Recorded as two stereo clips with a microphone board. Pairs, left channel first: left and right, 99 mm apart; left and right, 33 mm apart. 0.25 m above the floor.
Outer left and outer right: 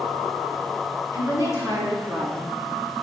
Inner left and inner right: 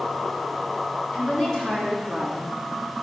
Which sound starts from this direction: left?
A woman speaking, at 1.1 s.